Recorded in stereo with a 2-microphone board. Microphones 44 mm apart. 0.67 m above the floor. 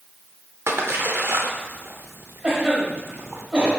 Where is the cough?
30° right (ahead or behind), 1.5 m.